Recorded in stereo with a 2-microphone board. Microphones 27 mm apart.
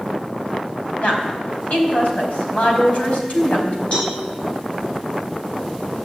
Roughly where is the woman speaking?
Left.